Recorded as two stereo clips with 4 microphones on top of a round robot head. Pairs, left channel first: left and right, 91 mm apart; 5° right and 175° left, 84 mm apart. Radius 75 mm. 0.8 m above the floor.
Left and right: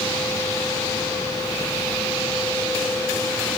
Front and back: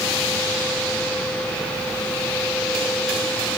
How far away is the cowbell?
I don't hear a cowbell.